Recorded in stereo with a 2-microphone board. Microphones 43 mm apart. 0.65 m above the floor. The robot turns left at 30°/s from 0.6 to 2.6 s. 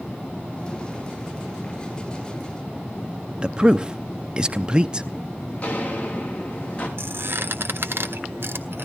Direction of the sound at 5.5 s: 35° left (ahead or behind).